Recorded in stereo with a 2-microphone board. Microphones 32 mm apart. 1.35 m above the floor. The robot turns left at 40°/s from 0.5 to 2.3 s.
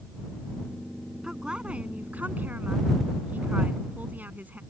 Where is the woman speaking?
20° right; by 4.6 s 60° right.